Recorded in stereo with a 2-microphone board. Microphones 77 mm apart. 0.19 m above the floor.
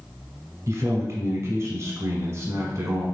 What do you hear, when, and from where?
0.7 s a man speaking: 35° right (ahead or behind), 1.2 m